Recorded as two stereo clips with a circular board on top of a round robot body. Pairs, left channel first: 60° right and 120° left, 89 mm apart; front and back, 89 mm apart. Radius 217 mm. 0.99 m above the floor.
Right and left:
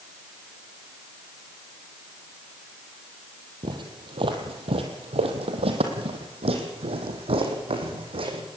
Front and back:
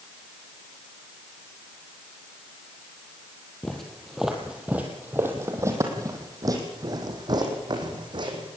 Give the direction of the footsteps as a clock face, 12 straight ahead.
9 o'clock.